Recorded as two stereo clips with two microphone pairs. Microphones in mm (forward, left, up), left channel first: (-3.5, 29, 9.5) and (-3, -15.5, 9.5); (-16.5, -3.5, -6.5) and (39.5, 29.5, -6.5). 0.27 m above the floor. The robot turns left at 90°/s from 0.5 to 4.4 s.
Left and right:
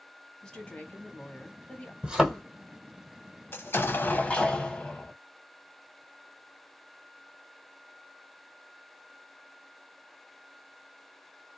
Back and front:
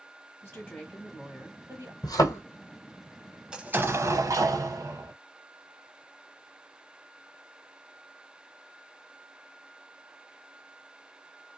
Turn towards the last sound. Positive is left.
turn(degrees=25)